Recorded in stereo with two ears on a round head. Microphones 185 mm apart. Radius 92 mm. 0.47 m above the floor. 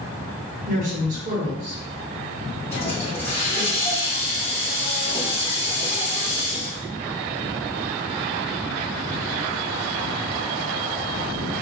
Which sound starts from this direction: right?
A woman speaking, at 0.7 s.